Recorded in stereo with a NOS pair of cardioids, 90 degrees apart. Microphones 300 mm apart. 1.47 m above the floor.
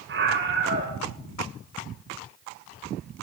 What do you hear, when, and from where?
0.1 s a scream: 35° right, 7.5 m